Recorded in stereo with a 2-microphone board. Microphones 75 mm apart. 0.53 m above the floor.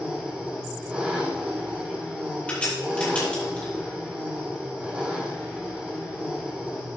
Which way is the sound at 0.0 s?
15° right (ahead or behind).